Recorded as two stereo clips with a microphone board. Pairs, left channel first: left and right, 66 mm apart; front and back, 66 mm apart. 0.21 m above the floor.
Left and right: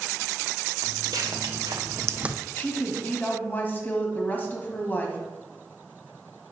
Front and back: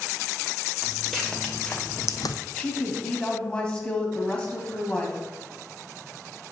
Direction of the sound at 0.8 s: 90° right.